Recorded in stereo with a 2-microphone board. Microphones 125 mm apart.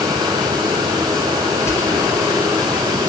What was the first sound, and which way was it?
Whispering, 25° left (ahead or behind).